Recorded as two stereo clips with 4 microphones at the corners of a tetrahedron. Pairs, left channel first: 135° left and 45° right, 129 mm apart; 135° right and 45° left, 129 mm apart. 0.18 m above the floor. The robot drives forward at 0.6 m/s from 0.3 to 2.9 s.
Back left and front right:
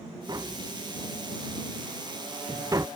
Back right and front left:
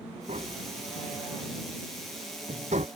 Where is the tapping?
15° left; by 2.9 s 20° left.